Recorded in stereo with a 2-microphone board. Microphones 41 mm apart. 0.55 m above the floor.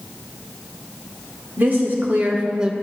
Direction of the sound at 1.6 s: 50° right (ahead or behind).